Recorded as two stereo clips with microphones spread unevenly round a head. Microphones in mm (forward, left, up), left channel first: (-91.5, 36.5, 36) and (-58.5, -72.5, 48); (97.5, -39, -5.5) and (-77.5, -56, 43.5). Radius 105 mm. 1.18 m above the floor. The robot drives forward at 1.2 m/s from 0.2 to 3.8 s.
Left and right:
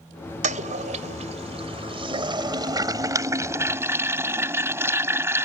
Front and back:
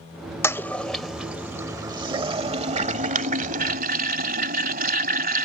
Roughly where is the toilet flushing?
Right.